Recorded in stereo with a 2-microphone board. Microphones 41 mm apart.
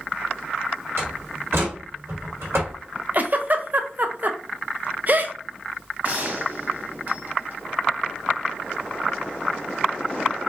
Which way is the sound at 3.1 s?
45° right (ahead or behind).